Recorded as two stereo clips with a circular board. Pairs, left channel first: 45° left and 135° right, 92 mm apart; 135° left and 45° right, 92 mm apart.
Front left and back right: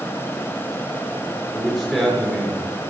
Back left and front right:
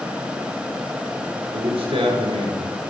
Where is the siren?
I don't hear a siren.